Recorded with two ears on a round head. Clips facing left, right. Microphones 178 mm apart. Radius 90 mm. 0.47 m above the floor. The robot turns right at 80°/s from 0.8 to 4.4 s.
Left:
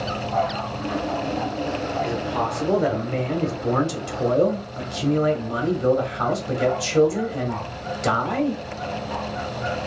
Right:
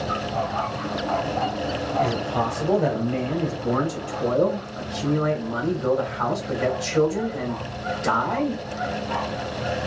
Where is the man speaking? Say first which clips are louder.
Right 2 dB; 65° right, 1.1 m; by 8.6 s 125° left, 1.1 m.